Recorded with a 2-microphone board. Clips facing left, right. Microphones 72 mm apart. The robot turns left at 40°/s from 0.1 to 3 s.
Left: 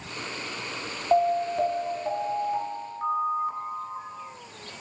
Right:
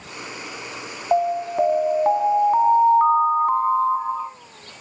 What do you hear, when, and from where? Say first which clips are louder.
1.1 s an alarm: right 2 dB; 15° right, 1.2 m; by 4.3 s 90° right, 1.2 m